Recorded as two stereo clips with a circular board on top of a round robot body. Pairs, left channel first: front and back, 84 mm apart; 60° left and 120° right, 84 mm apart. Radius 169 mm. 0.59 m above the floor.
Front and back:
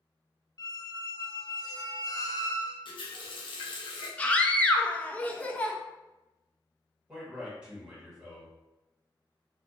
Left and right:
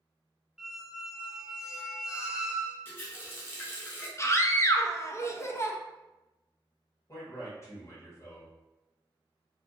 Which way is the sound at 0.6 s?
40° right.